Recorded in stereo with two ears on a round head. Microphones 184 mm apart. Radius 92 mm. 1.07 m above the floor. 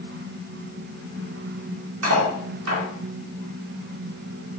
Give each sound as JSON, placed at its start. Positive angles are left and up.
{"t": 2.0, "sound": "cutlery clinking", "side_deg": -80, "distance_m": 1.8}